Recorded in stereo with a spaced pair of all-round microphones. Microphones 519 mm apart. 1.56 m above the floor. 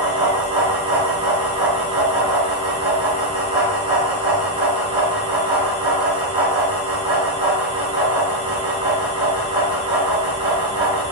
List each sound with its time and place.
0.0 s a fan: 10° right (ahead or behind), 1.3 m